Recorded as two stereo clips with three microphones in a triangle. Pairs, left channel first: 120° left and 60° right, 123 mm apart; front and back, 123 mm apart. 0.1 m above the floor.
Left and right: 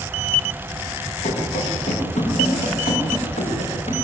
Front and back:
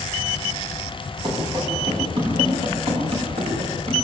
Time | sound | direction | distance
1.2 | running footsteps | 130° left | 8.5 m